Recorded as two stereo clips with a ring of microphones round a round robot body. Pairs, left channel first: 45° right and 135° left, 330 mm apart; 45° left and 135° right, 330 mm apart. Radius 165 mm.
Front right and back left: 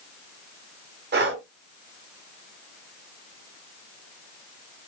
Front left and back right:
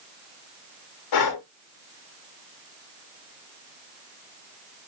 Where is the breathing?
75° left, 0.9 m.